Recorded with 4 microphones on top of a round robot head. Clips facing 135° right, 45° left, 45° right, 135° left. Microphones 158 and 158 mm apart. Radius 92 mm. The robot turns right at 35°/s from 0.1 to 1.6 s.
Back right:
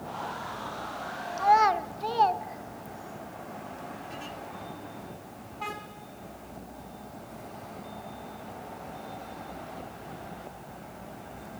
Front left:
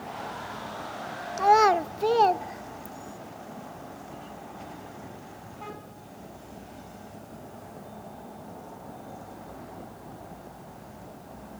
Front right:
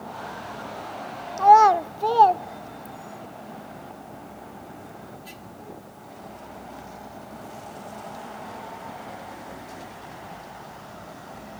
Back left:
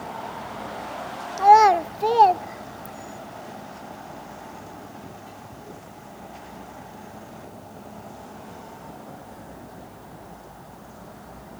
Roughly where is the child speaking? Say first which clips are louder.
Front left 3 dB, even; ahead left.